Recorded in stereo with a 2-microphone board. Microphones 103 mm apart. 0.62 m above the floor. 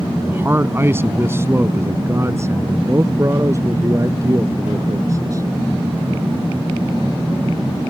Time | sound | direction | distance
0.3 | a man speaking | 20° right (ahead or behind) | ?